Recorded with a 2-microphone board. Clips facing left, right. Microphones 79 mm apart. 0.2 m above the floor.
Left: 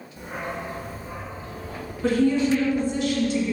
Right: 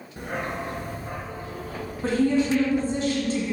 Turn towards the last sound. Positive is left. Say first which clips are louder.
# left 1 dB
turn(degrees=-40)  # may be behind; listen again after turning